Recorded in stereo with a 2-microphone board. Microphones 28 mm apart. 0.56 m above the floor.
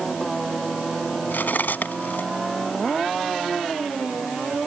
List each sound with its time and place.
1.3 s cutlery clinking: 80° left